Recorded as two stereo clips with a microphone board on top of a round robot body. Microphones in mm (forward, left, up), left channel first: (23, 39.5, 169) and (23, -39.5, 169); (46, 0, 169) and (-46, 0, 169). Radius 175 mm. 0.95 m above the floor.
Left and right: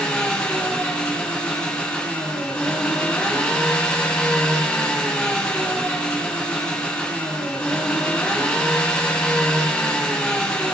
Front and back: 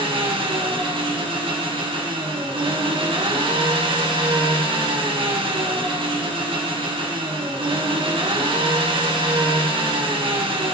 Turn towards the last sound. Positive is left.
turn(degrees=170)